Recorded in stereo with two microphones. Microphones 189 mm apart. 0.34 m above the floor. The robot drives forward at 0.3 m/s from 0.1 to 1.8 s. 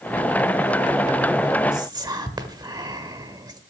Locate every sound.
1.7 s whispering: 20° right (ahead or behind), 1.0 m